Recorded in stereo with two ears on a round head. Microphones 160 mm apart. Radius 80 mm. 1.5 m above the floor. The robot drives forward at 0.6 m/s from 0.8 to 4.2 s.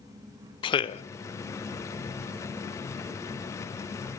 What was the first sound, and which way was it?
A man speaking, 30° left (ahead or behind).